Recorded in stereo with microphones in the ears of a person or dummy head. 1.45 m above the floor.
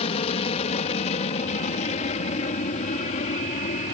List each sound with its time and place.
0.0 s an aircraft: 35° left (ahead or behind); by 3.9 s 40° left (ahead or behind)